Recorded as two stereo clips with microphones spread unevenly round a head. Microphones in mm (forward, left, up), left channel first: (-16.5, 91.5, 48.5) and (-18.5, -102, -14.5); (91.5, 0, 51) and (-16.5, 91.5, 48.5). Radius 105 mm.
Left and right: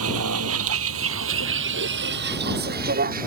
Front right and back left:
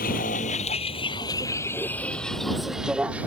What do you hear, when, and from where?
0.0 s a vehicle: 80° right; by 3.3 s 140° right